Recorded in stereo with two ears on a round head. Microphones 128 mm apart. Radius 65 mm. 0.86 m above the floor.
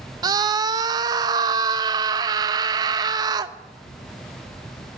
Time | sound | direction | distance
0.2 | a scream | 25° right (ahead or behind) | 0.7 m